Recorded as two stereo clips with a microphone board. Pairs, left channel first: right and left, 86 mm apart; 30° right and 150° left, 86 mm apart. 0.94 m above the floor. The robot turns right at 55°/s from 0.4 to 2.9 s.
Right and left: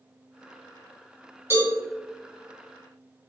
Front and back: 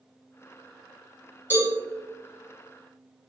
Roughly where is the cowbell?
Ahead left.